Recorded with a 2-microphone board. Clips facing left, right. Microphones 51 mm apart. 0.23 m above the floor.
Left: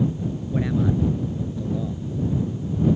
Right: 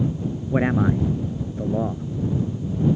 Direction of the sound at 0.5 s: 45° right (ahead or behind).